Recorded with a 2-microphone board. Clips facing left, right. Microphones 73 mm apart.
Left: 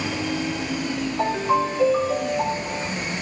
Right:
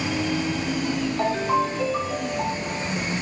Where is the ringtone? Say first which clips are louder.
Left 2 dB; 10° left (ahead or behind), 4 m.